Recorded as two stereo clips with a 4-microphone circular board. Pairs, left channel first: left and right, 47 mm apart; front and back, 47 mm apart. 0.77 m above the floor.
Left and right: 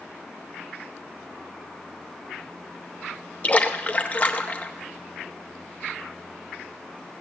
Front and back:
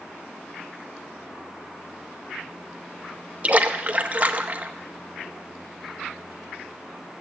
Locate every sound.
3.4 s a splash: 135° left, 0.9 m